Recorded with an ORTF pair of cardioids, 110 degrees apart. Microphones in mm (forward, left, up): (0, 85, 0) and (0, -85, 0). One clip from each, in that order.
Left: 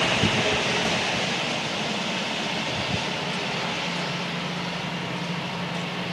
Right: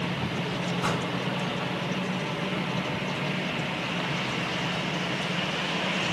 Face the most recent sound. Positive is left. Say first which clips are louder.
# left 4 dB
turn(degrees=-50)